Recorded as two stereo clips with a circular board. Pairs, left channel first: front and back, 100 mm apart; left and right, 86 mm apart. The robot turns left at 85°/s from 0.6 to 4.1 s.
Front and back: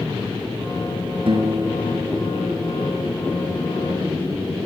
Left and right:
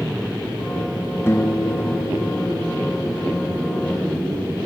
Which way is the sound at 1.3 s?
150° left.